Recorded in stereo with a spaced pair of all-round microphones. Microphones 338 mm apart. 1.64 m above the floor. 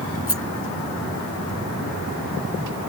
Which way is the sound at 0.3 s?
40° left (ahead or behind).